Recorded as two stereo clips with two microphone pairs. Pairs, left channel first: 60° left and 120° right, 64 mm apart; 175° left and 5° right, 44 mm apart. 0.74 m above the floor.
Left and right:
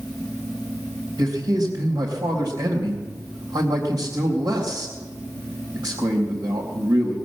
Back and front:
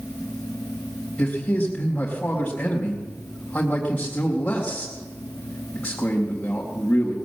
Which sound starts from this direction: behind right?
A man speaking, at 1.2 s.